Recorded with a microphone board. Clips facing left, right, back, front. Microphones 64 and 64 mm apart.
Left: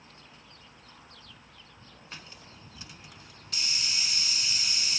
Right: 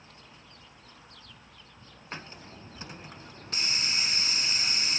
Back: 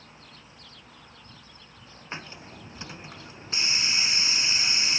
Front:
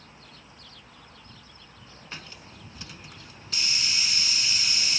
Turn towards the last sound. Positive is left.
turn(degrees=-130)